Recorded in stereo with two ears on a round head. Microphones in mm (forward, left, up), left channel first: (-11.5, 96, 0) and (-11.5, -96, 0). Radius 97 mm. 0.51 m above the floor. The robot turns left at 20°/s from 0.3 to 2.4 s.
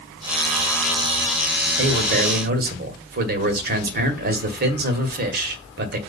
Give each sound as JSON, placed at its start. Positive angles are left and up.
{"t": 1.8, "sound": "a man speaking", "side_deg": -55, "distance_m": 1.8}